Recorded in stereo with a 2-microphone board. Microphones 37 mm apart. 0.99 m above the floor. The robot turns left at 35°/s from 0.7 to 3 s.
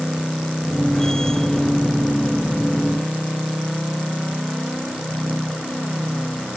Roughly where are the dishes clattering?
I don't hear dishes clattering.